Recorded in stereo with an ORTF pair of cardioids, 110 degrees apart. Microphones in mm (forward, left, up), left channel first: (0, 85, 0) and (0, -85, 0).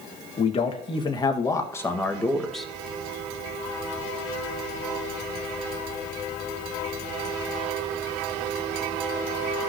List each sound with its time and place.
0.4 s a man speaking: 35° left, 1.9 m; by 2.7 s straight ahead, 1.8 m